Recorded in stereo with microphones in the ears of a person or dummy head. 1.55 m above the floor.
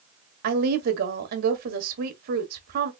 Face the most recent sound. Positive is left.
turn(degrees=-50)  # may be behind; listen again after turning